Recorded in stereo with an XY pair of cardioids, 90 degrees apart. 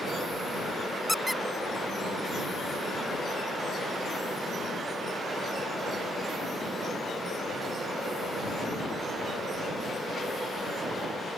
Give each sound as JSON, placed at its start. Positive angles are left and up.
{"t": 1.1, "sound": "a squeak", "azimuth_deg": 5}